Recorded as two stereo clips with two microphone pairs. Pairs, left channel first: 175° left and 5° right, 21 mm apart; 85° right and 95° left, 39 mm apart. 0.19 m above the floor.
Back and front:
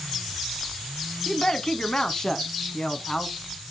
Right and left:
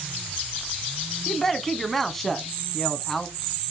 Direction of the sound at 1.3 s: 165° right.